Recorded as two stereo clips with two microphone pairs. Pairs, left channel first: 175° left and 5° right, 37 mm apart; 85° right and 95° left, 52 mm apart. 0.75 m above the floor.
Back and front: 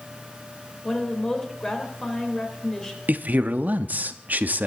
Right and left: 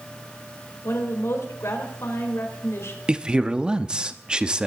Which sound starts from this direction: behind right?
A woman speaking, at 0.8 s.